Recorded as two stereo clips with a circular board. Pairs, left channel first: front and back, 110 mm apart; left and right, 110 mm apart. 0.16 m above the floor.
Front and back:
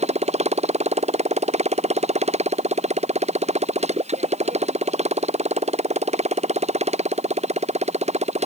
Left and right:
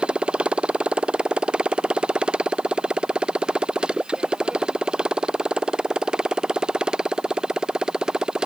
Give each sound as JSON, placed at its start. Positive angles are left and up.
{"t": 0.0, "sound": "a motorcycle", "azimuth_deg": -170}